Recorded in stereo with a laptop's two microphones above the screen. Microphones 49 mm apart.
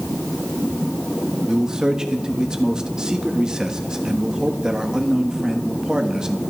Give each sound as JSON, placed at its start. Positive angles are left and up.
{"t": 1.5, "sound": "a man speaking", "side_deg": -15, "distance_m": 1.1}